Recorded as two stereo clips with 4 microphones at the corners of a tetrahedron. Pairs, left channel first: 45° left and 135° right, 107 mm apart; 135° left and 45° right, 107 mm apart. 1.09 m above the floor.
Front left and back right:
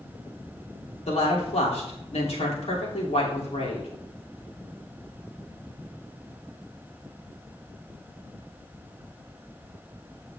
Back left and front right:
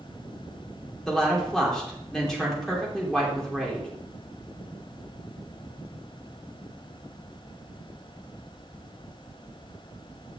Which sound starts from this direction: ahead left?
A woman speaking, at 1.1 s.